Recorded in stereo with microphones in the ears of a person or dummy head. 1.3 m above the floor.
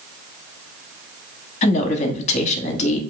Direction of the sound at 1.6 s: 35° left (ahead or behind).